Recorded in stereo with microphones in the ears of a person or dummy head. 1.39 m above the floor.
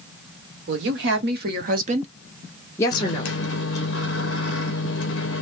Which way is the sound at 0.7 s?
70° right (ahead or behind).